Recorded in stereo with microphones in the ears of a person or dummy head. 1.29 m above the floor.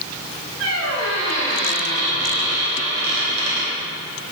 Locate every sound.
0.6 s a squeak: 75° right (ahead or behind), 2.5 m